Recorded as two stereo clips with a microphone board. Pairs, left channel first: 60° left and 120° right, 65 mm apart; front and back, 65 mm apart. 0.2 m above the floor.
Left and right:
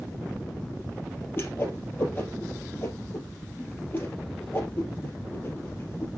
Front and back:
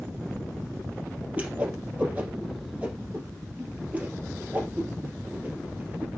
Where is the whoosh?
115° left, 3 m.